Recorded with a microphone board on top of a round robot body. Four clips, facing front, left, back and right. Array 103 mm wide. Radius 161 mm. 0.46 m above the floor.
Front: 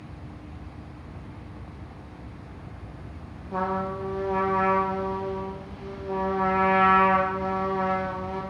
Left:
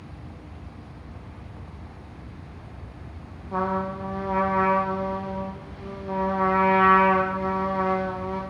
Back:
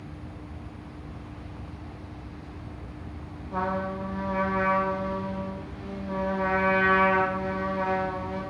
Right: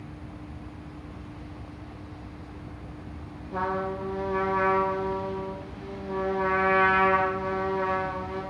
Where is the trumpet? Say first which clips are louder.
Left 3 dB, front 1 dB; 85° left, 0.7 m.